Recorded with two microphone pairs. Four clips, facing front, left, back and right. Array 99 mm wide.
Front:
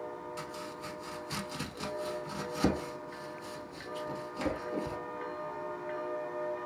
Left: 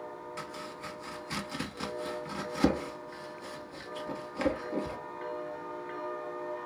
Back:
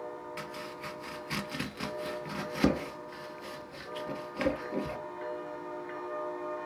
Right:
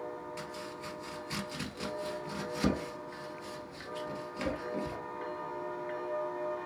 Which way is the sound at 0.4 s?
145° left.